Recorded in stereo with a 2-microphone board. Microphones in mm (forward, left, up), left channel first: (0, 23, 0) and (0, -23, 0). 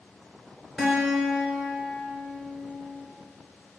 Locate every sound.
0.8 s a guitar: 10° left (ahead or behind), 2 m